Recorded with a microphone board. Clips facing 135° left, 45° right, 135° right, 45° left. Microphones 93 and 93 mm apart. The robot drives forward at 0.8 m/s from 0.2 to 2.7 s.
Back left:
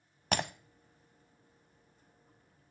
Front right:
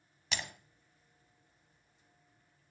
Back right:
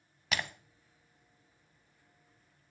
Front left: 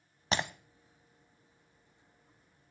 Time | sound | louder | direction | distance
0.3 | breaking glass | back left 8 dB, front left 3 dB | 100° left | 0.5 m